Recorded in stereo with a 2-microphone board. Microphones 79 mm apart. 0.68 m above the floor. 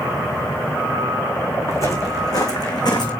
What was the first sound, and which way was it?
Footsteps, 40° left (ahead or behind).